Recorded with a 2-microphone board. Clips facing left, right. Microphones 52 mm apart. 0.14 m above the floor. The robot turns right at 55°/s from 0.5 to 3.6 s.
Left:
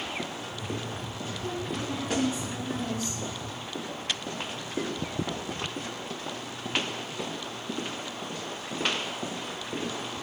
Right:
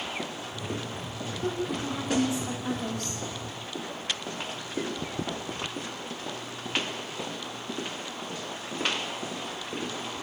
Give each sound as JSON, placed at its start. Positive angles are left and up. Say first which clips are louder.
{"t": 1.4, "sound": "a woman speaking", "louder": "right 3 dB", "azimuth_deg": -140, "distance_m": 9.0}